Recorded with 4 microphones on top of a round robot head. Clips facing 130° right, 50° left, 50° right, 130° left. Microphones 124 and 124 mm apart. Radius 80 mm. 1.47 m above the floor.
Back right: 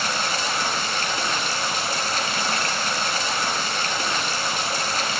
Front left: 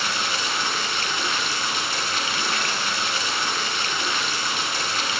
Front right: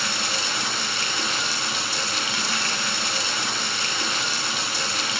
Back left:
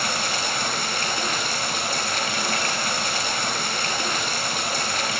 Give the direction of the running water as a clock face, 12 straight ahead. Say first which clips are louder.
Back right 2 dB, back left 3 dB; 6 o'clock.